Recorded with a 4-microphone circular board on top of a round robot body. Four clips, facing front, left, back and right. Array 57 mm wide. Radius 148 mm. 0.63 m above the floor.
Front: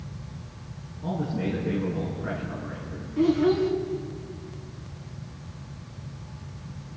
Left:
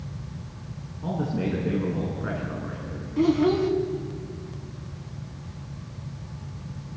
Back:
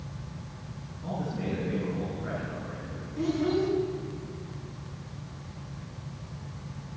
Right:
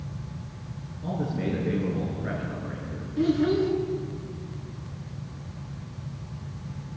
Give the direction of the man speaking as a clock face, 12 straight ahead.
9 o'clock.